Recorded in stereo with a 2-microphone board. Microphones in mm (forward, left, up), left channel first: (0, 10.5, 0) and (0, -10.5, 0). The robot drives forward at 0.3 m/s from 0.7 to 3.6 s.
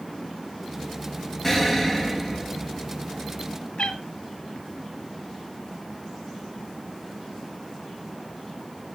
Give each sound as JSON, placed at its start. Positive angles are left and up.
{"t": 1.4, "sound": "an explosion", "side_deg": 15, "distance_m": 1.8}
{"t": 3.8, "sound": "a cat meowing", "side_deg": 65, "distance_m": 0.9}